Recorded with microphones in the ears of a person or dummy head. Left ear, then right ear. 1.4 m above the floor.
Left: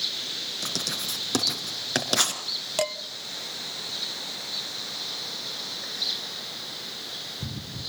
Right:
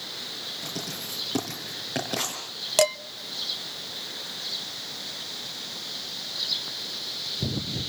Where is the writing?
60° left (ahead or behind), 4.5 m.